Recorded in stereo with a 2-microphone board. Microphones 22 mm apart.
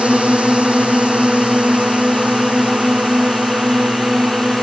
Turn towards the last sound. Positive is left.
turn(degrees=-70)  # may be behind; listen again after turning